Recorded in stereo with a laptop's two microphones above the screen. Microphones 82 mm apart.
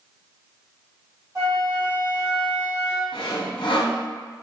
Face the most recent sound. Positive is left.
turn(degrees=65)  # may be behind; listen again after turning